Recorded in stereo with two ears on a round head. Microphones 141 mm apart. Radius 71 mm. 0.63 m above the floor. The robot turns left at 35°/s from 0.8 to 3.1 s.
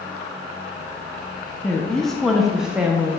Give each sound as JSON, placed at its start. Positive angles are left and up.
{"t": 1.6, "sound": "a woman speaking", "side_deg": 10, "distance_m": 1.0}